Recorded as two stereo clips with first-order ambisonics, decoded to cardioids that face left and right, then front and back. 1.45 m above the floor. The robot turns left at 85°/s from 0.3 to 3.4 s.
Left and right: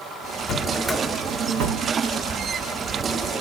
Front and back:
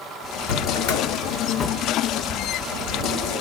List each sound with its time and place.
0.5 s a drawer: 40° left, 2 m; by 3.4 s 150° left, 2 m